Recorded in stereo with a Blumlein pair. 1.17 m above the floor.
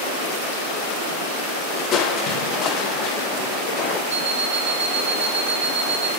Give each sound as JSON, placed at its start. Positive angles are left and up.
{"t": 1.9, "sound": "crushing", "azimuth_deg": 30, "distance_m": 0.6}
{"t": 4.1, "sound": "an alarm clock", "azimuth_deg": -60, "distance_m": 1.7}